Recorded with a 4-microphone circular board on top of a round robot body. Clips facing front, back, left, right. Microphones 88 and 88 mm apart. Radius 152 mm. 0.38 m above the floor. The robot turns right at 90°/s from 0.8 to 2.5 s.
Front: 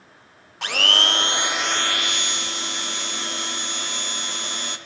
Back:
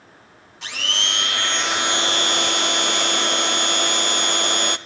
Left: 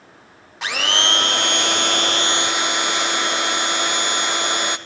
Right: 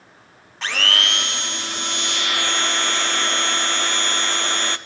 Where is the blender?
10° left, 0.5 m; by 4.8 s 165° left, 0.5 m.